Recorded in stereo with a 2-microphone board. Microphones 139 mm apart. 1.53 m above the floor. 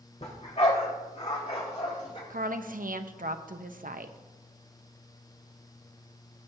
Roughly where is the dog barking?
Left.